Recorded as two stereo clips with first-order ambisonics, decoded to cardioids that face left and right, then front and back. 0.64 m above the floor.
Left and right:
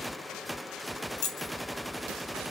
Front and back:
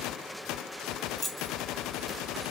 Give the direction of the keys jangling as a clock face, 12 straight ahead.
9 o'clock.